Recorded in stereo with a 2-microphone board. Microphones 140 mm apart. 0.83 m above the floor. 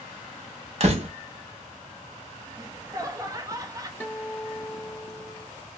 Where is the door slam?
50° right (ahead or behind), 0.9 m.